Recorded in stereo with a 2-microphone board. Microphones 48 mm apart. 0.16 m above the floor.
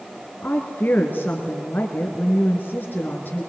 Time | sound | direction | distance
0.4 | a woman speaking | 40° left (ahead or behind) | 1.9 m